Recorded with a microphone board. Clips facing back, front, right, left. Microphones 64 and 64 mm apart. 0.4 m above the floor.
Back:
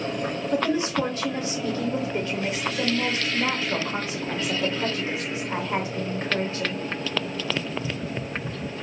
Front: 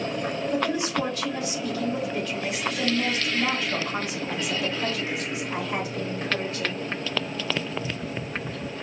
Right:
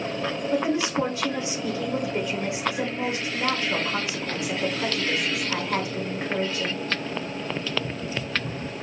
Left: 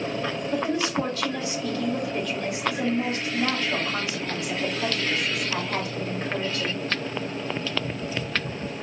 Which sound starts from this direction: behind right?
A woman speaking, at 0.5 s.